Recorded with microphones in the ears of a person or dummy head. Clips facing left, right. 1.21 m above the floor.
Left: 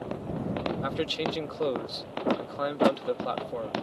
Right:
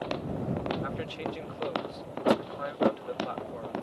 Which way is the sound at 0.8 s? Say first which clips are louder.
Left 5 dB; 55° left (ahead or behind).